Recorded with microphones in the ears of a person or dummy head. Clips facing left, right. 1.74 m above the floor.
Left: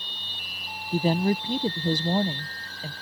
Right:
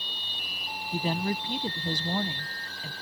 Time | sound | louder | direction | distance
0.9 | a woman speaking | left 7 dB | 25° left (ahead or behind) | ?